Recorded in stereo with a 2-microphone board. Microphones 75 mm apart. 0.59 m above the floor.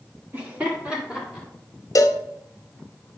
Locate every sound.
0.3 s laughter: 25° right (ahead or behind), 1.3 m; by 1.5 s 10° right (ahead or behind), 2.5 m
1.9 s a cowbell: 50° left (ahead or behind), 0.6 m